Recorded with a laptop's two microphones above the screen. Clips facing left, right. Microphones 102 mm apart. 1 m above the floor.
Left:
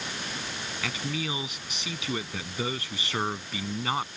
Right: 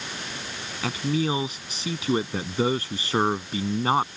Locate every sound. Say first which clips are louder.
0.8 s a man speaking: right 9 dB; 35° right (ahead or behind)